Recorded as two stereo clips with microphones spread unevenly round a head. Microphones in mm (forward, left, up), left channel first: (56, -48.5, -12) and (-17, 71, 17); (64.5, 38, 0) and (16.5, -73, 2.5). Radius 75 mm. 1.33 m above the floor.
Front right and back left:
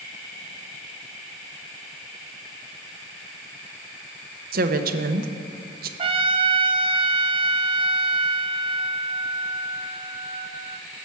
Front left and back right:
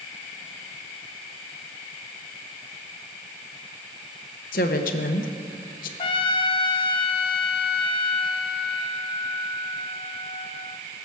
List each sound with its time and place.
4.5 s a woman speaking: 95° left, 1.0 m
6.0 s a trumpet: 105° left, 0.7 m